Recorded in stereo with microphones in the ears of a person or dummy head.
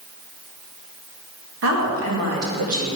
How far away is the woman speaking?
About 1.9 m.